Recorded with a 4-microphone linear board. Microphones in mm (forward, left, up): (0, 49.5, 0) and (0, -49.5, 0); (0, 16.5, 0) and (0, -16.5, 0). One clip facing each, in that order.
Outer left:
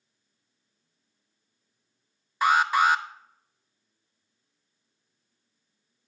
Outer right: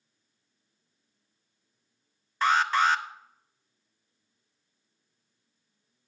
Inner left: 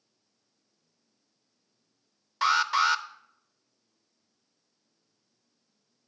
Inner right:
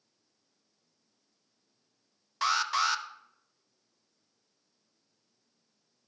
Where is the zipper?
I don't hear a zipper.